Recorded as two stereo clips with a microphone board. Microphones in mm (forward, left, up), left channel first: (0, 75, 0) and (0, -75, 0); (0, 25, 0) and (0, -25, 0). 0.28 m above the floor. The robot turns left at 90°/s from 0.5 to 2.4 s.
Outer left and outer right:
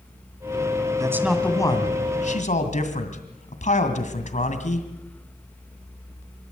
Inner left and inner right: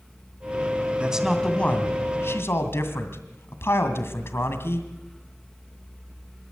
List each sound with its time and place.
1.0 s a man speaking: 150° right, 2 m; by 4.9 s 85° left, 2 m